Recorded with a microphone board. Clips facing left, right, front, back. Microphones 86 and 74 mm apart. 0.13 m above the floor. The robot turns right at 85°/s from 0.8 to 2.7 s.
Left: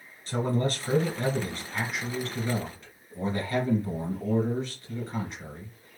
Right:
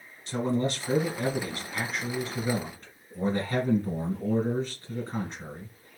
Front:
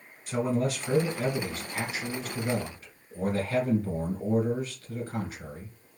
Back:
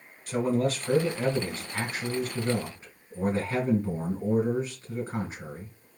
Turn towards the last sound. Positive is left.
turn(degrees=-130)